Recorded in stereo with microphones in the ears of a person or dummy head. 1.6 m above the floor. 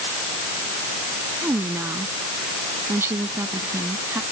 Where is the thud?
I don't hear a thud.